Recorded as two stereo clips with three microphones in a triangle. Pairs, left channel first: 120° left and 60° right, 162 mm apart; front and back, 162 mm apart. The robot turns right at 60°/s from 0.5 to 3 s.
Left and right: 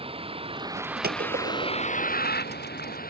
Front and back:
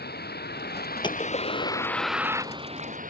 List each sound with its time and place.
0.0 s a vehicle: 5° right; by 3.1 s 145° left
1.0 s a gunshot: 60° right; by 2.2 s 10° left